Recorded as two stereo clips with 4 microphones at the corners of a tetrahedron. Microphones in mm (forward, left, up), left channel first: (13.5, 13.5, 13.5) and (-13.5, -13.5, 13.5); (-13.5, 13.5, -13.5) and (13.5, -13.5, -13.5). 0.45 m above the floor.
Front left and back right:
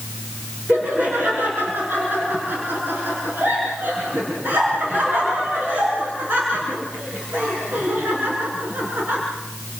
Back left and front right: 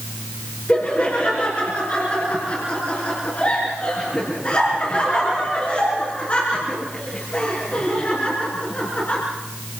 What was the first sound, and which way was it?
Laughter, 170° right.